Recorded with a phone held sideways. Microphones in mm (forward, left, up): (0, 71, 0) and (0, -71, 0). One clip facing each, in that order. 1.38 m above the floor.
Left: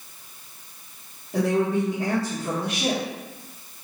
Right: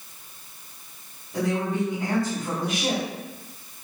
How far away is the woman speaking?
About 1.5 m.